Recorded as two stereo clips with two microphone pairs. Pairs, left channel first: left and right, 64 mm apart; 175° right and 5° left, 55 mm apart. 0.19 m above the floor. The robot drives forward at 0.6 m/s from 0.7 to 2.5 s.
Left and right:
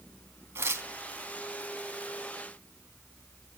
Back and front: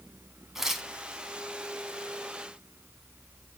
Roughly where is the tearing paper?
Right.